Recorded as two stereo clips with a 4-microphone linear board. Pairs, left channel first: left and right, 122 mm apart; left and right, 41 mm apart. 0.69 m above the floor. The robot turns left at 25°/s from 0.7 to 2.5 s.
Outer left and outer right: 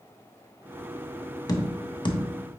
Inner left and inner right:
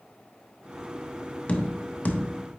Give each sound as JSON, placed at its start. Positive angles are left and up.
{"t": 1.5, "sound": "tapping", "side_deg": 30, "distance_m": 0.9}